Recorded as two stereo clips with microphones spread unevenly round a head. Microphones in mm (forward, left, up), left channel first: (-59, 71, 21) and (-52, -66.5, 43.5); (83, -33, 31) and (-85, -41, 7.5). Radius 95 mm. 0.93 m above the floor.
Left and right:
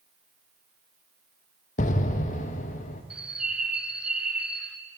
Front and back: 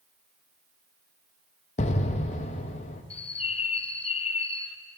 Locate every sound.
1.8 s an explosion: 60° left, 0.6 m
3.1 s a bird: 10° left, 0.6 m